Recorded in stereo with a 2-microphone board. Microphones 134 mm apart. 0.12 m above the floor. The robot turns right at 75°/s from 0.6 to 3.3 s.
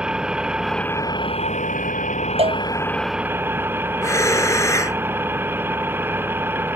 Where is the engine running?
5° right; by 6.8 s 165° right.